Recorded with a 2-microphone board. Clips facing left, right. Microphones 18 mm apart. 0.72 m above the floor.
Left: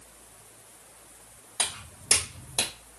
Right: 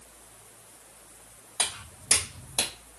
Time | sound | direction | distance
1.6 | footsteps | 30° left (ahead or behind) | 2.0 m